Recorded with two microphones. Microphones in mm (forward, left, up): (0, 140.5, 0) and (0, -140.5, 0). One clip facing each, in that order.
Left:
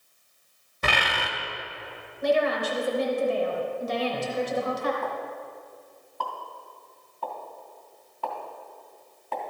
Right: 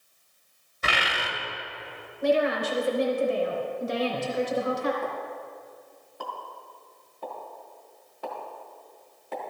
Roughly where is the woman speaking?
Right.